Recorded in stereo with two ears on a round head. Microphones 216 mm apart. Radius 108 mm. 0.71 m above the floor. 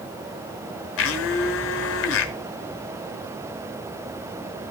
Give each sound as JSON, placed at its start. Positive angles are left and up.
{"t": 1.0, "sound": "a blender", "side_deg": 60, "distance_m": 1.1}